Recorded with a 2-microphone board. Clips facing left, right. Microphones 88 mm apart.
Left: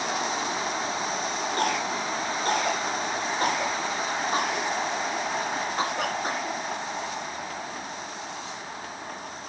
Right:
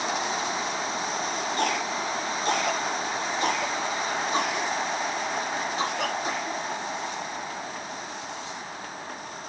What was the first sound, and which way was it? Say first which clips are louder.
A cough: left 1 dB; 45° left (ahead or behind).